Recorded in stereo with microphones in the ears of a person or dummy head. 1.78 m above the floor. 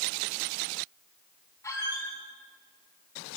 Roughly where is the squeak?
Centre.